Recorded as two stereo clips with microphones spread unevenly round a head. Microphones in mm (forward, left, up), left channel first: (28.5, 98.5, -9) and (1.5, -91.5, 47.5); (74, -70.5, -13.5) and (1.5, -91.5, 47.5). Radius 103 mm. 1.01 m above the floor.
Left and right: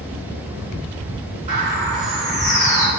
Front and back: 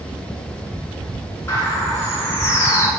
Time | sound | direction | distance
1.5 | a bird | 45° right | 4 m